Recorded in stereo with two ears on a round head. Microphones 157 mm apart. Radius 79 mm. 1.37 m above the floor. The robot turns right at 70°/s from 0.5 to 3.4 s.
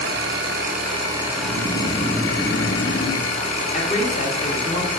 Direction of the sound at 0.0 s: 70° right.